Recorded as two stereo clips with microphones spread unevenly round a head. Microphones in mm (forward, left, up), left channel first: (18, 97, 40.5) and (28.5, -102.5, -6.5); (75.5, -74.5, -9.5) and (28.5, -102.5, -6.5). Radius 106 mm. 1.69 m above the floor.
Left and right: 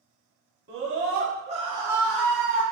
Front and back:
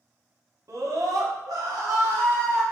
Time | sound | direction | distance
0.7 | a scream | 125° right | 1.2 m